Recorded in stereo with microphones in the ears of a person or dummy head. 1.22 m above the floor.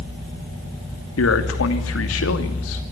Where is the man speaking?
65° left (ahead or behind), 2.5 m.